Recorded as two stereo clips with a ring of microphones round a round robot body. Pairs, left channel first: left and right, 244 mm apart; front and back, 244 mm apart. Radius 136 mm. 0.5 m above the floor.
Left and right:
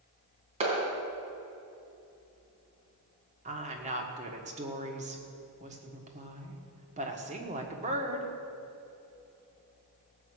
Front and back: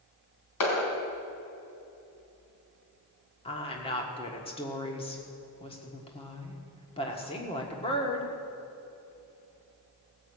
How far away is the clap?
About 3 m.